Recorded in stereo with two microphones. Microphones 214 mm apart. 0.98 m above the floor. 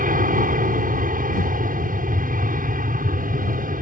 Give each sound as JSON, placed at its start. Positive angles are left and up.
{"t": 0.0, "sound": "an aircraft", "side_deg": -45}